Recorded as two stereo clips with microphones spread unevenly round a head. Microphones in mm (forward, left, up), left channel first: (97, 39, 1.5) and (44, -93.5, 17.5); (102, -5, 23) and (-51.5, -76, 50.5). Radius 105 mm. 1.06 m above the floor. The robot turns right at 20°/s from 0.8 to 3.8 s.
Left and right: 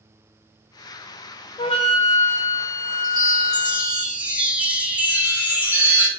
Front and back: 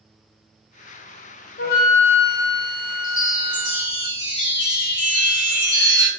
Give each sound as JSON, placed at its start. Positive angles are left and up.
{"t": 1.6, "sound": "a flute", "azimuth_deg": 20, "distance_m": 0.5}
{"t": 3.0, "sound": "a chime", "azimuth_deg": -50, "distance_m": 1.3}